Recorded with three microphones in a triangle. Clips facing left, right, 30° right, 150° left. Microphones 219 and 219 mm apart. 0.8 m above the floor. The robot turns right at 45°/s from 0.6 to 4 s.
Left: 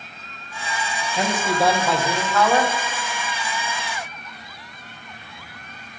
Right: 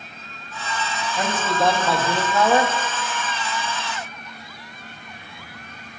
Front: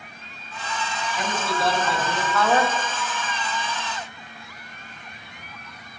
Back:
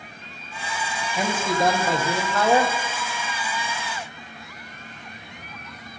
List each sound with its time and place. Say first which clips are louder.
1.1 s a man speaking: left 2 dB, back 4 dB; 150° left, 1.3 m; by 2.7 s 140° right, 1.3 m